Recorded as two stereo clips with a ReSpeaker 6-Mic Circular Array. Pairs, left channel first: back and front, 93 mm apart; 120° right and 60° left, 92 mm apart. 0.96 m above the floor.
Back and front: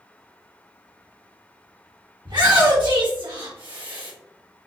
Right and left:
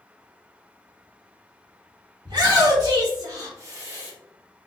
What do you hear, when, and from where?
2.2 s a shout: 25° left, 2 m; by 4.1 s 5° right, 1.1 m